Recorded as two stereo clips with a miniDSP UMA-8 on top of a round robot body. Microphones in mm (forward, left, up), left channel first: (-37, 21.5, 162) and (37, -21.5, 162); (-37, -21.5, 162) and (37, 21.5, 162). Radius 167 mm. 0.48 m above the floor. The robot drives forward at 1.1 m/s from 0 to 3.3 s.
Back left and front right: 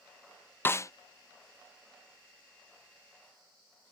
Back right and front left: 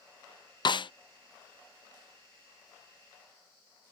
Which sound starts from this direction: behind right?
A snare drum, at 0.7 s.